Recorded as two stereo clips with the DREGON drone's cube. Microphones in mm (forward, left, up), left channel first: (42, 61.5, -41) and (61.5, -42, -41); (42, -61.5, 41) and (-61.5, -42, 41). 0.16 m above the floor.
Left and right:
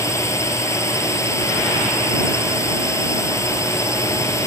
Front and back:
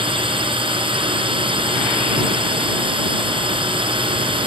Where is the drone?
155° left.